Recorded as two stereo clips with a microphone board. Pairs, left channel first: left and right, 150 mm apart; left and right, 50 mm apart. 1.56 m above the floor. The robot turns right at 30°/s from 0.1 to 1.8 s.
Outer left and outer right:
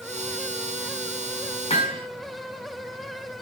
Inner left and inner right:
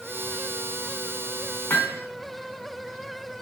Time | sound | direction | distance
1.7 | hammering | 40° left (ahead or behind) | 3.5 m